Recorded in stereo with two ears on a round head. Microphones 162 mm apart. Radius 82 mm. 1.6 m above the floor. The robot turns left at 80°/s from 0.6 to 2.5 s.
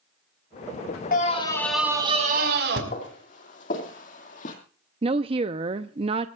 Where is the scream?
50° left, 4 m; by 2.8 s 60° right, 4 m.